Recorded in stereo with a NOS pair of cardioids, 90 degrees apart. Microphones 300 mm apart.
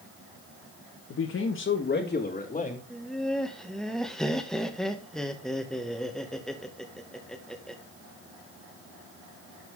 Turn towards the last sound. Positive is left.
turn(degrees=0)